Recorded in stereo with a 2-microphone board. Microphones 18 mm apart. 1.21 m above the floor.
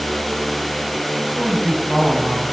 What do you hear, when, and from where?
1.2 s a woman speaking: 15° right (ahead or behind), 8.5 m; by 2.4 s 20° right (ahead or behind), 9.5 m